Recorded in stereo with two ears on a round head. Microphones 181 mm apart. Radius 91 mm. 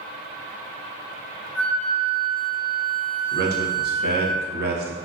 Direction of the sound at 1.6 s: 85° right.